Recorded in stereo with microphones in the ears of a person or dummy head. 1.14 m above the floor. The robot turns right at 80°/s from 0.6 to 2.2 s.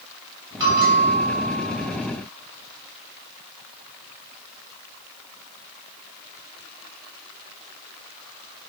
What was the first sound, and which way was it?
A bell, 40° right.